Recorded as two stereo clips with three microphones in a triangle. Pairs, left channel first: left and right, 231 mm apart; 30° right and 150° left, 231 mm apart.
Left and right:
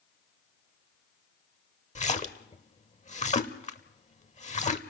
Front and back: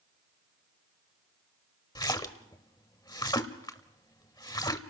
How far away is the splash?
About 1.0 m.